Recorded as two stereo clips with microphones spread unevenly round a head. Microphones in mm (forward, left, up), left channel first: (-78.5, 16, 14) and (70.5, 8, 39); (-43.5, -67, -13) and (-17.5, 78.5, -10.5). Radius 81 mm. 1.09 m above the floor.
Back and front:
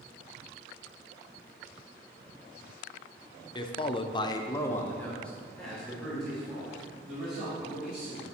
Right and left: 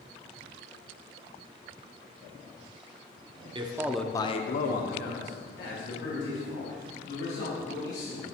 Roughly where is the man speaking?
Behind left.